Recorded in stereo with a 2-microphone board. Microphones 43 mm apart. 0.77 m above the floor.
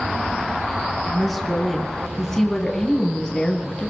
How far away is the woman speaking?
About 6 m.